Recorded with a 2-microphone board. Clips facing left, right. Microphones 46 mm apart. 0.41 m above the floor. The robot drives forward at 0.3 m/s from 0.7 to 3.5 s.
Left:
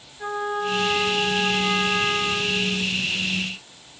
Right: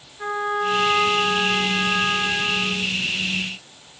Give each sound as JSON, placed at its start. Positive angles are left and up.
{"t": 0.2, "sound": "a trumpet", "side_deg": -45, "distance_m": 1.8}